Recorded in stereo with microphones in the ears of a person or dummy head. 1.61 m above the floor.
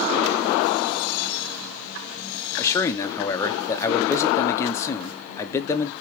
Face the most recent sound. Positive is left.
turn(degrees=20)  # may be behind; listen again after turning